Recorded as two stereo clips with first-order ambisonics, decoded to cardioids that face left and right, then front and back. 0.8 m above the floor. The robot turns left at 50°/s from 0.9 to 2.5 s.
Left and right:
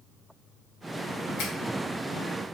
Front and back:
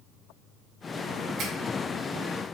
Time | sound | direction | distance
1.4 | a finger snap | 130° left | 3 m